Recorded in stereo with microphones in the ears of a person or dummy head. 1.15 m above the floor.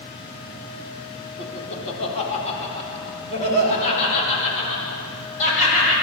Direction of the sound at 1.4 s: 35° left (ahead or behind).